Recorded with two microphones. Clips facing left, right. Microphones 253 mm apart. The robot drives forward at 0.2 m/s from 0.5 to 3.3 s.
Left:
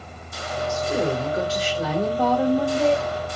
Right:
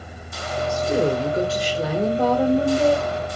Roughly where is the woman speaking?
Right.